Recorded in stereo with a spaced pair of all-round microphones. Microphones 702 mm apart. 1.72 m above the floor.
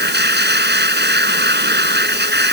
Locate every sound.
0.0 s a machine running: 15° right (ahead or behind)